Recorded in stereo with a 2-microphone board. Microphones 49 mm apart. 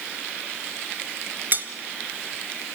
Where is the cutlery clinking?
40° right (ahead or behind), 0.9 m.